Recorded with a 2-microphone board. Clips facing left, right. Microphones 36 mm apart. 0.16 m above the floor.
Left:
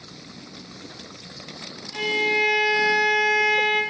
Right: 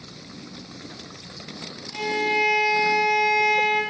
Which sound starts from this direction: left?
A violin, at 1.9 s.